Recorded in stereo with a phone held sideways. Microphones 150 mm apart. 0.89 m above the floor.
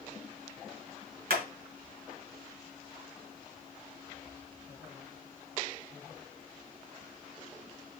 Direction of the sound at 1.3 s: 80° right.